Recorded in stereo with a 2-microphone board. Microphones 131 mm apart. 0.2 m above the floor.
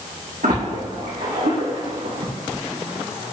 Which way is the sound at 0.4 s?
80° right.